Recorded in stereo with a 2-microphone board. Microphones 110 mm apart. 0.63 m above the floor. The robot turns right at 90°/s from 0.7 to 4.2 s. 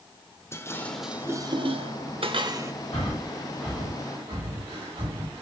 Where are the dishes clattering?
25° left (ahead or behind), 1.4 m; by 2.7 s 25° right (ahead or behind), 1.4 m.